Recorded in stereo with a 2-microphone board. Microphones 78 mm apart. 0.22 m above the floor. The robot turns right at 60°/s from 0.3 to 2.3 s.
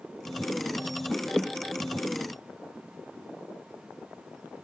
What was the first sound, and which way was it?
Only background noise.